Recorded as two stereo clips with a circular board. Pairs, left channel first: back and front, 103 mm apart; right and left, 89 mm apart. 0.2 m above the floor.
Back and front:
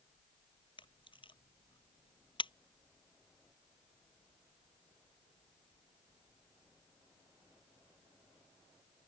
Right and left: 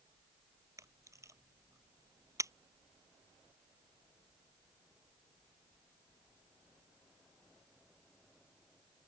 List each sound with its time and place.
0.8 s a camera shutter: 145° left